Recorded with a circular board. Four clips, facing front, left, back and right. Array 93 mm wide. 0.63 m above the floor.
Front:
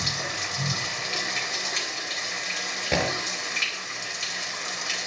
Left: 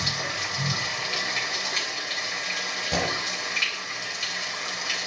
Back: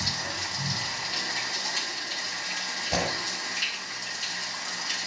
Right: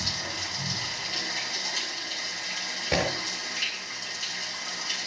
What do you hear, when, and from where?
0.0 s running water: 50° left, 3 m
2.9 s breaking glass: 25° right, 5 m